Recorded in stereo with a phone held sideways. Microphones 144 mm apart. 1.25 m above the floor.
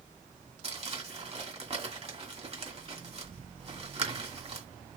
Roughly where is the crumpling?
Right.